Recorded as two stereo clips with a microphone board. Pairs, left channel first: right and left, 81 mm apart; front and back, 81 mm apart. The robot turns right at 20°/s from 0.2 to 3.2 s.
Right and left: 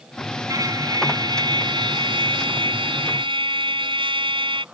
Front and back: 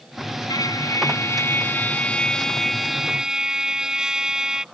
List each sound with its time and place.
0.5 s a trumpet: 45° left; by 4.7 s 95° left